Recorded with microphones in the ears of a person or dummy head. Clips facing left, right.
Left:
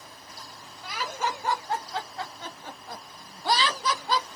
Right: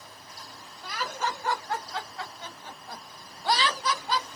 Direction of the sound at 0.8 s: 5° left (ahead or behind).